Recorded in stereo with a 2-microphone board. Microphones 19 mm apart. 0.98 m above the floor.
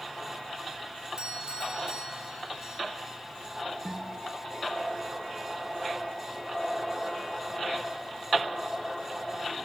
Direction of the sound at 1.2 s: 45° right (ahead or behind).